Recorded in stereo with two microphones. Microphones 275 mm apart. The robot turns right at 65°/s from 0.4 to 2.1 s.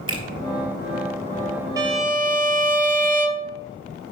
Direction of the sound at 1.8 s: 15° right (ahead or behind).